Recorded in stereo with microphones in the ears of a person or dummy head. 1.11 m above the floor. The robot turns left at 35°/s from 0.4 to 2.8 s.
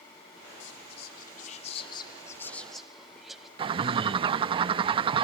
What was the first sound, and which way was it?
Whispering, 75° left.